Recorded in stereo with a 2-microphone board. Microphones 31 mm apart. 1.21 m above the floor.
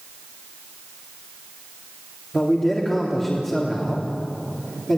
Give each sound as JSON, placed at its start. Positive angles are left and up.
{"t": 2.3, "sound": "a man speaking", "side_deg": 10, "distance_m": 3.5}